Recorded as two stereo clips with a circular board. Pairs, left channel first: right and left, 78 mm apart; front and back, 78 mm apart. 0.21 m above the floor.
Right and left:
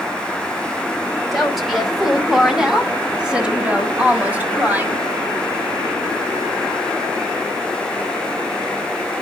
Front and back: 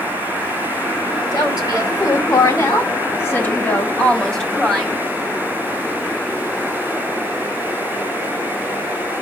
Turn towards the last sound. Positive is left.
turn(degrees=105)